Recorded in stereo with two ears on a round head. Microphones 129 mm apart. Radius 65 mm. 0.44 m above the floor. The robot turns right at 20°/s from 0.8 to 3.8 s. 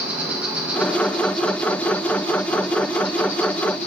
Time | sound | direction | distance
0.0 | an insect | 10° right | 1.1 m